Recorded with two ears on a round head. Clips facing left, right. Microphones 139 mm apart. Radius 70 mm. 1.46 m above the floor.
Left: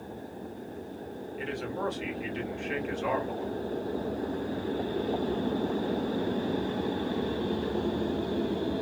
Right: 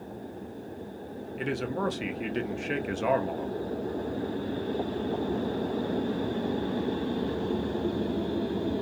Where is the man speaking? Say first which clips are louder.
Right 3 dB; 60° right (ahead or behind), 0.7 m.